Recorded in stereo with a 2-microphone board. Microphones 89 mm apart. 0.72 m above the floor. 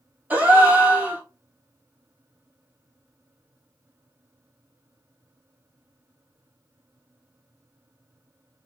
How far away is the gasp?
About 0.9 m.